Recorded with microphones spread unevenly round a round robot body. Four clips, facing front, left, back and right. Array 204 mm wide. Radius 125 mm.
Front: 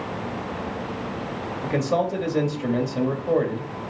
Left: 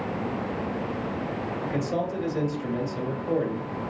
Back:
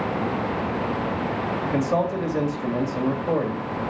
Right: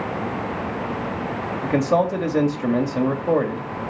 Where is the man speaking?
85° right, 1.8 m.